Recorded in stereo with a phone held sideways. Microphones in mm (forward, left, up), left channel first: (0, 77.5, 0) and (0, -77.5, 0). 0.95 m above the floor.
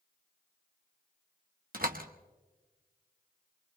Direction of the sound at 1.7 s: 70° right (ahead or behind).